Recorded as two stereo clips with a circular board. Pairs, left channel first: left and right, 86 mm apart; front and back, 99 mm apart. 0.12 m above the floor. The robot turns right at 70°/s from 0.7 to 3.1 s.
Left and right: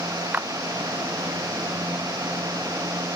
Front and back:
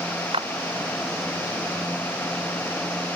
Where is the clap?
160° right.